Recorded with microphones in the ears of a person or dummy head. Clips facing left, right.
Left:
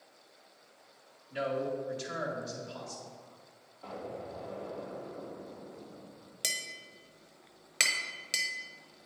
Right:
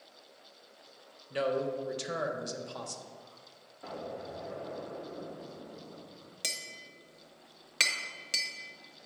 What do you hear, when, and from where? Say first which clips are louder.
1.3 s a man speaking: right 2 dB; 45° right (ahead or behind), 1.2 m
3.8 s an explosion: right 1 dB; 15° right (ahead or behind), 1.3 m
6.4 s tapping: left 1 dB; centre (ahead or behind), 0.9 m